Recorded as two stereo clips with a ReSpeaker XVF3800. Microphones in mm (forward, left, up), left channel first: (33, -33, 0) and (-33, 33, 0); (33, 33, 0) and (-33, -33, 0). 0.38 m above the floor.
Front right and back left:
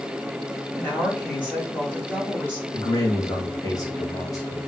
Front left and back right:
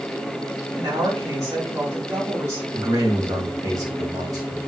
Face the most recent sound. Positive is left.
turn(degrees=-90)